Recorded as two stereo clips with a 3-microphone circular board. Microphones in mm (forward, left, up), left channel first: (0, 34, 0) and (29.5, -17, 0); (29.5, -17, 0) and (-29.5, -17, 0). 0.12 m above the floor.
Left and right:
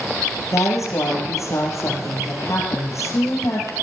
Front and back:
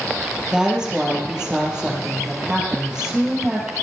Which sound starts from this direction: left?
A woman speaking, at 0.5 s.